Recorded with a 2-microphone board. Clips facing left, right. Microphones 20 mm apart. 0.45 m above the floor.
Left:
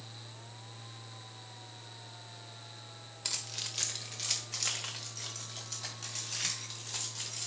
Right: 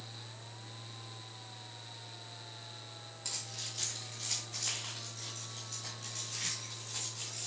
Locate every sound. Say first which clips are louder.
3.2 s keys jangling: left 4 dB; 50° left (ahead or behind), 1.2 m; by 7.5 s 55° left (ahead or behind), 3 m